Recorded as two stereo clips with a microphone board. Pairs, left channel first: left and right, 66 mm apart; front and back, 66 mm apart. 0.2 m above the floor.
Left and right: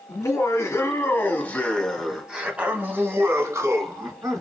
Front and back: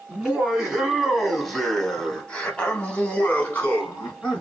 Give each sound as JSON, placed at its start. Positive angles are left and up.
{"t": 0.1, "sound": "laughter", "azimuth_deg": 100, "distance_m": 1.7}